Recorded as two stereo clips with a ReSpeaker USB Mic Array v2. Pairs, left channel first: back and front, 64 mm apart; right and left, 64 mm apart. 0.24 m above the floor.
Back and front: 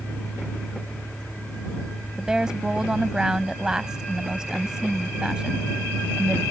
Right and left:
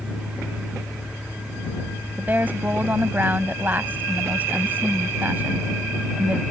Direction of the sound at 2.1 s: 70° left.